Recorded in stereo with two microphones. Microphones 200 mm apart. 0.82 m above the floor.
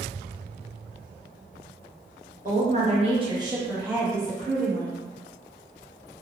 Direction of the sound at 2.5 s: 45° right (ahead or behind).